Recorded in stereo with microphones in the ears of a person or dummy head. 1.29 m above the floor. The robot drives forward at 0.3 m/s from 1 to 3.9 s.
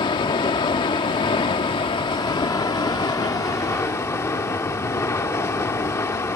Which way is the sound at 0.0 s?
25° left (ahead or behind).